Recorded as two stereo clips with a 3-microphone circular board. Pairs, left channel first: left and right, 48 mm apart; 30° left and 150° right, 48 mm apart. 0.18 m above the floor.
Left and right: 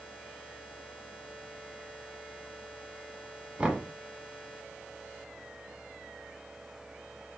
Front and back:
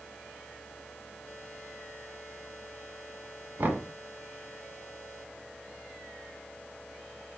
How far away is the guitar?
I don't hear a guitar.